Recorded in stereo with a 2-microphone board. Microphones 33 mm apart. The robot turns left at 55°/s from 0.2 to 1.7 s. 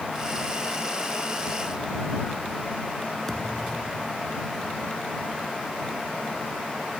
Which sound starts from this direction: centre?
A thud, at 3.3 s.